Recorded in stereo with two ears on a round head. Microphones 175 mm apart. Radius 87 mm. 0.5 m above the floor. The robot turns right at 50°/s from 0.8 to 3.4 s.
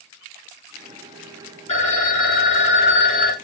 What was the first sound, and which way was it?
A phone ringing, 40° left.